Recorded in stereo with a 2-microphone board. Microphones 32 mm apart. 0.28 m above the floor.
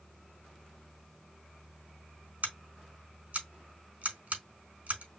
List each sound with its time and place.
2.4 s scissors: 60° right (ahead or behind), 3.5 m